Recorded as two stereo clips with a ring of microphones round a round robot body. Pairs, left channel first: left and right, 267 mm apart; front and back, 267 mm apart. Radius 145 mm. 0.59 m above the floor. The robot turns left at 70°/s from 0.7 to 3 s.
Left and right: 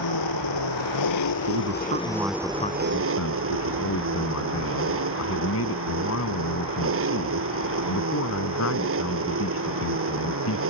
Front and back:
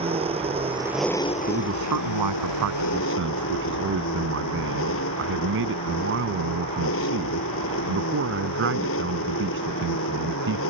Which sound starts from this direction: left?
An engine running, at 0.0 s.